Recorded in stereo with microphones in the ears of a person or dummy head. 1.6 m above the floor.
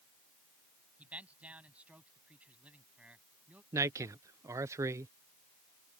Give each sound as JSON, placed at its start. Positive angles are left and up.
{"t": 1.0, "sound": "a man speaking", "side_deg": -10}
{"t": 3.7, "sound": "a man speaking", "side_deg": -15}